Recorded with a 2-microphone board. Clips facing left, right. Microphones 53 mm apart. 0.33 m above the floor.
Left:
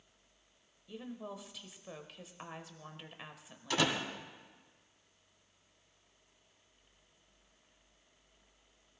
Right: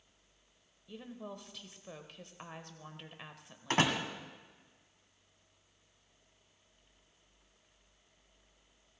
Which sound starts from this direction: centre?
A woman speaking, at 0.9 s.